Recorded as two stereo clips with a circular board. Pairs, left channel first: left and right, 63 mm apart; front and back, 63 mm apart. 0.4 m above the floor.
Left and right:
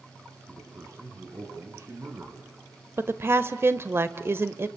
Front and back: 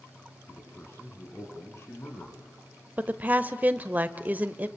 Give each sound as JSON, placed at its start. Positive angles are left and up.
{"t": 0.5, "sound": "a man speaking", "azimuth_deg": -50, "distance_m": 4.5}
{"t": 3.0, "sound": "a woman speaking", "azimuth_deg": -125, "distance_m": 1.2}